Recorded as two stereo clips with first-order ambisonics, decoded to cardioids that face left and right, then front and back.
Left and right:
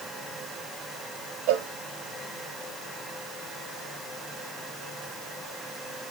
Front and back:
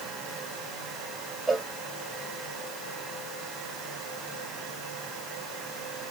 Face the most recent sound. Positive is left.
turn(degrees=-105)